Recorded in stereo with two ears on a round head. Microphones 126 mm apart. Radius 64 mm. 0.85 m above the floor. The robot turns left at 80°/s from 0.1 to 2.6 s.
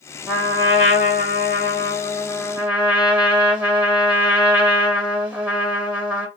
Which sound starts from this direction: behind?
A trumpet, at 0.3 s.